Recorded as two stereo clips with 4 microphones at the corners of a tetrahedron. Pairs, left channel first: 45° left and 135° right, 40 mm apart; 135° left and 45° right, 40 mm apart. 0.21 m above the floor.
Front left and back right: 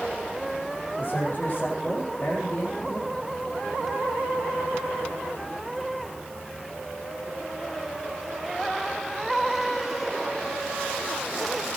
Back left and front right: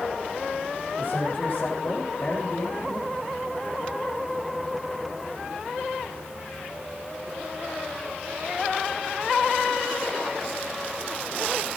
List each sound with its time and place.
1.0 s a man speaking: 85° left, 8 m